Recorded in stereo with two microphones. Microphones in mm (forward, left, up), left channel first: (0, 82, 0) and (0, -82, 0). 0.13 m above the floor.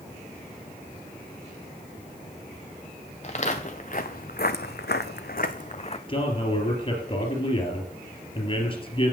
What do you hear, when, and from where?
3.2 s footsteps: 45° left (ahead or behind), 1.3 m; by 6.0 s 35° left (ahead or behind), 0.7 m
6.1 s a man speaking: 35° left (ahead or behind), 2.5 m